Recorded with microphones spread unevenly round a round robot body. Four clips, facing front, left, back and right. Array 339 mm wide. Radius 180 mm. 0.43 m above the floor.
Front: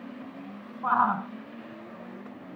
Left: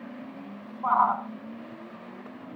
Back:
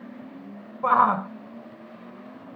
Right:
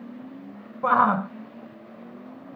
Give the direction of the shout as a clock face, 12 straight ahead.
4 o'clock.